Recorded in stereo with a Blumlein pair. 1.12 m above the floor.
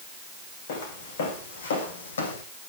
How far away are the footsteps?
About 5 m.